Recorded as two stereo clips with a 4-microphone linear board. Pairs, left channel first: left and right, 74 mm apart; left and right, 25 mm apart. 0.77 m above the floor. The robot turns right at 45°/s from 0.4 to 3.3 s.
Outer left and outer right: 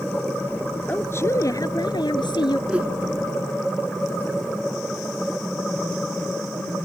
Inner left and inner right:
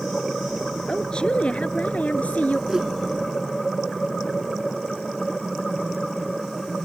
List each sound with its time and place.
0.9 s a woman speaking: 20° left; by 2.6 s 100° left
2.7 s a whoosh: 15° right (ahead or behind); by 2.9 s 25° right (ahead or behind)